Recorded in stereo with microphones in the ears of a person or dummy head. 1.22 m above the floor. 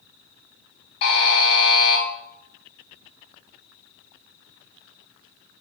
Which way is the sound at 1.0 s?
50° left (ahead or behind).